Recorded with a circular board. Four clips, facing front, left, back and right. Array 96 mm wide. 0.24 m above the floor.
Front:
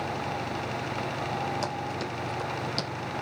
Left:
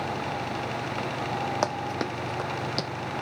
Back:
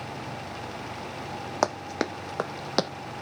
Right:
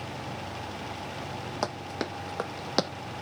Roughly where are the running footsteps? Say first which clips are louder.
Left 5 dB, back 4 dB; behind.